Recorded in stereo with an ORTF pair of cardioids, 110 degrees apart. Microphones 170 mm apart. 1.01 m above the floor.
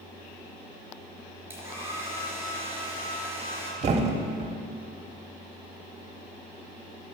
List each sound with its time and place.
1.5 s a hair dryer: 15° right, 4 m
3.8 s a thud: 40° right, 1.1 m